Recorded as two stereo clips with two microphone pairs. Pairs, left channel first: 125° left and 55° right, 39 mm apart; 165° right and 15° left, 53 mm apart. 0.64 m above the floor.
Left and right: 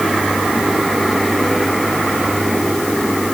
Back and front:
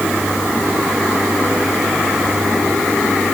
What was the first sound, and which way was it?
Only background noise.